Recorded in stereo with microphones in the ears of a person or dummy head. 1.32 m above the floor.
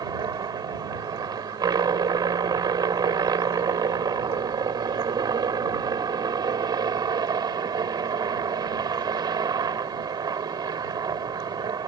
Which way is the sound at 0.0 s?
20° right (ahead or behind).